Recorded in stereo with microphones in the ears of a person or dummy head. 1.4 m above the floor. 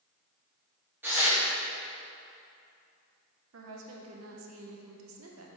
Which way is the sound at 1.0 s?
15° right (ahead or behind).